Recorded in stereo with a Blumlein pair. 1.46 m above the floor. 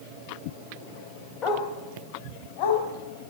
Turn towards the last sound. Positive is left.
turn(degrees=45)